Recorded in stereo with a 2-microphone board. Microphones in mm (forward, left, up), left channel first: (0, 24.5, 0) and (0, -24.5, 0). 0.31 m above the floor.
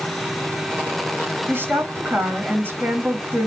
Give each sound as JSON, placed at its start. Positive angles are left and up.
{"t": 1.5, "sound": "a woman speaking", "side_deg": -45, "distance_m": 2.0}